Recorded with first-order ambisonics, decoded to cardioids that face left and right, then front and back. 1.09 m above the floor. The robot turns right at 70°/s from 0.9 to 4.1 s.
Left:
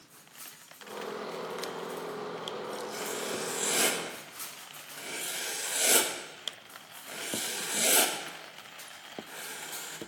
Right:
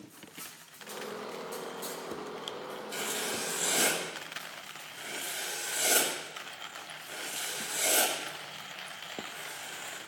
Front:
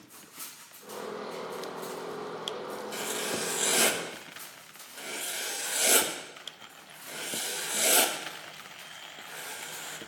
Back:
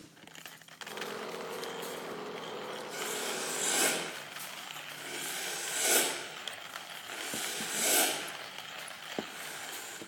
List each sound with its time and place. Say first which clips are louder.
2.9 s writing: right 4 dB, front 3 dB; 45° right, 1.3 m; by 10.0 s 40° left, 1.3 m